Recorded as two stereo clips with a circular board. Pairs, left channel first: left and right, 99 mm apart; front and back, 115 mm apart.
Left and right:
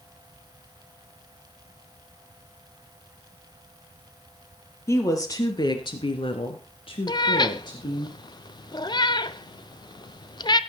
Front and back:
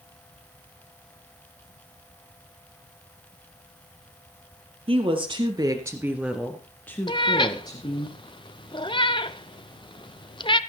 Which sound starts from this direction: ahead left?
A cat meowing, at 7.1 s.